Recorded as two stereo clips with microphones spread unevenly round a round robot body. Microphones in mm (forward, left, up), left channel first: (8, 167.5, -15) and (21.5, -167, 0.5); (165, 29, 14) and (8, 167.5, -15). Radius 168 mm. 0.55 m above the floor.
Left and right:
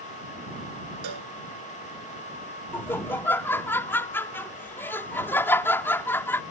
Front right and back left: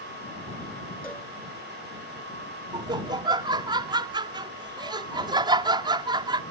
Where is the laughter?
165° left.